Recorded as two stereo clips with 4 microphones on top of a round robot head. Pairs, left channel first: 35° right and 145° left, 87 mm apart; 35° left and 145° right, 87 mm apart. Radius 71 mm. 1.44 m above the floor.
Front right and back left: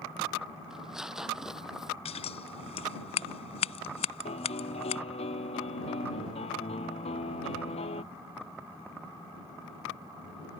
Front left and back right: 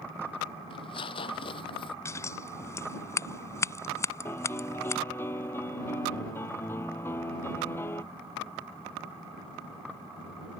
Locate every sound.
0.7 s tearing paper: 60° left
2.0 s scissors: 25° right
4.2 s a piano: 35° right